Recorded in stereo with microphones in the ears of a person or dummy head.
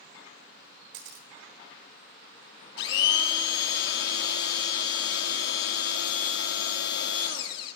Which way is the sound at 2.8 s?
65° left (ahead or behind).